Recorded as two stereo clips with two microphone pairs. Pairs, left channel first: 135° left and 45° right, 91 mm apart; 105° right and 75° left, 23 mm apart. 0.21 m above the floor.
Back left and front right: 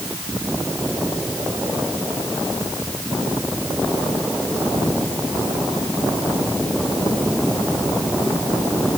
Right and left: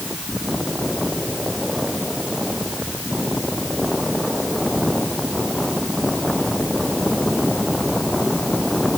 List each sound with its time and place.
Only background noise.